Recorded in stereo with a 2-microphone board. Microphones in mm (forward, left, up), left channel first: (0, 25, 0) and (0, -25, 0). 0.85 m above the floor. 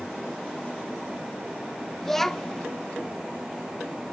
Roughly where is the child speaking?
Centre.